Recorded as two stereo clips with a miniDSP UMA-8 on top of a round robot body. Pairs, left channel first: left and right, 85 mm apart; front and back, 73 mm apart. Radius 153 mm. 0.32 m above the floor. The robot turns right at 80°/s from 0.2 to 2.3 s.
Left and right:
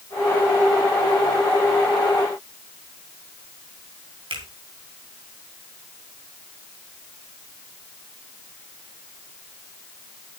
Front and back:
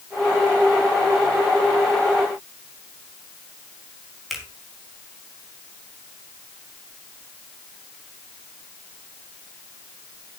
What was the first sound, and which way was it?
A finger snap, 90° right.